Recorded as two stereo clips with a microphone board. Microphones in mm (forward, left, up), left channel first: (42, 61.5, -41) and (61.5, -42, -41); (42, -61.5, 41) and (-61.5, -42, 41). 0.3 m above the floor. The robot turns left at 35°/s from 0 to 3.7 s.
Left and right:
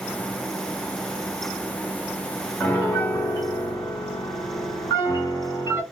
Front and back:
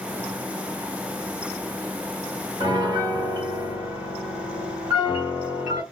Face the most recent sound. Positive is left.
turn(degrees=125)